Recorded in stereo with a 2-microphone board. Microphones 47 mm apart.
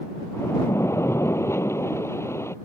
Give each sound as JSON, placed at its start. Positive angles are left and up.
{"t": 0.3, "sound": "a splash", "side_deg": 75}